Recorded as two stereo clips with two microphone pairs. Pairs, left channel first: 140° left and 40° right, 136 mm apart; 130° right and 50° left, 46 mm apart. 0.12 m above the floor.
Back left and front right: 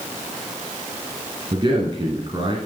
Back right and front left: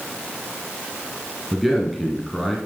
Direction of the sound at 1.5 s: 45° right.